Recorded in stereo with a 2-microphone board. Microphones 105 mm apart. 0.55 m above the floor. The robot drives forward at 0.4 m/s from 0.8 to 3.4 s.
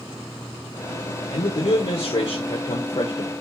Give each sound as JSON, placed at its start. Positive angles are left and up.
{"t": 1.3, "sound": "a man speaking", "side_deg": 65, "distance_m": 1.5}